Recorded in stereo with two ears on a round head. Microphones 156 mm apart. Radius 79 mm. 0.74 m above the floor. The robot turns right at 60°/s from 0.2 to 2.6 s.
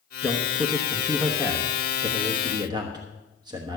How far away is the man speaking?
About 1.1 m.